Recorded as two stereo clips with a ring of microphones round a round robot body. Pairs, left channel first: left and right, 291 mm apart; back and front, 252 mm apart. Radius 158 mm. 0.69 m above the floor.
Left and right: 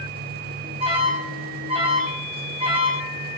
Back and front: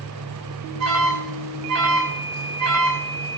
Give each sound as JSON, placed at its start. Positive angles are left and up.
{"t": 0.8, "sound": "an alarm", "azimuth_deg": -20, "distance_m": 3.0}